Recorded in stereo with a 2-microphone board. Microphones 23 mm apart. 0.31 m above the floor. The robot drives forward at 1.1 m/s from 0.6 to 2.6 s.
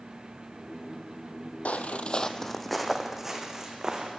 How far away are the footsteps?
About 0.8 m.